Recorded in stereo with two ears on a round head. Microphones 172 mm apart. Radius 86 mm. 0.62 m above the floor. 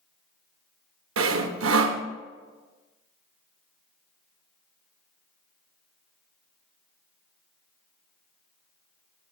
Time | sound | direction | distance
1.2 | sawing | 85° right | 0.7 m